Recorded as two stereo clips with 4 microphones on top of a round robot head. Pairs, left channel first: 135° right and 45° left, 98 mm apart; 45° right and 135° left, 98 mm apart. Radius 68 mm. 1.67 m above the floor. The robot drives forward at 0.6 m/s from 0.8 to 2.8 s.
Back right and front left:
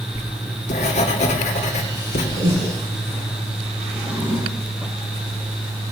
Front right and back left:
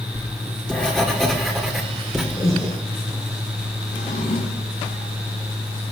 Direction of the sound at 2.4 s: 10° left.